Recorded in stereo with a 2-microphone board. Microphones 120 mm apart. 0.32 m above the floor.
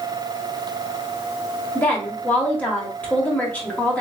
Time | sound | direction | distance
1.8 | a woman speaking | 15° left (ahead or behind) | 1.3 m